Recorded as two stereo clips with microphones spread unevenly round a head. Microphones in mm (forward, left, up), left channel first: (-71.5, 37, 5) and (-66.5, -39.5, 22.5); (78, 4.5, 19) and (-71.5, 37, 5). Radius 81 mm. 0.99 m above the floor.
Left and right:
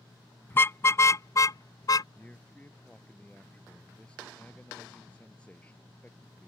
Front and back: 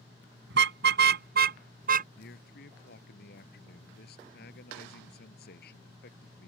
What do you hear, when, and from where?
0.5 s a car horn: 155° left; by 2.0 s 135° left
2.1 s a man speaking: 10° left